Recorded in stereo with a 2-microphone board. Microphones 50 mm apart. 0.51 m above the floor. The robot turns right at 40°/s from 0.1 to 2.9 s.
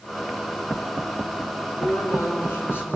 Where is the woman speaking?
90° left, 5.5 m; by 3.0 s 140° left, 5.5 m.